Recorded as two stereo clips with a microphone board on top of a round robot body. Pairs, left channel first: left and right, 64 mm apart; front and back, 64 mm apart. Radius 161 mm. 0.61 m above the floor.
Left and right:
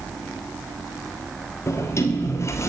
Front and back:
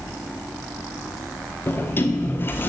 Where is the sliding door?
50° left, 1.3 m.